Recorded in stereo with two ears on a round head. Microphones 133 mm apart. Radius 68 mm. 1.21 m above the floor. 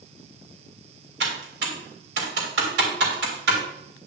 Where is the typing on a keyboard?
80° right, 3.5 m.